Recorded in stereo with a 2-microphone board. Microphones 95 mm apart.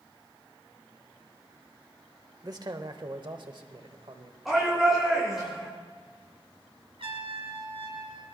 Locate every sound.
2.4 s a man speaking: 40° right (ahead or behind), 1.2 m; by 4.3 s 60° right (ahead or behind), 1.8 m
4.5 s a shout: 5° right (ahead or behind), 4 m
7.0 s a trumpet: 65° right (ahead or behind), 2 m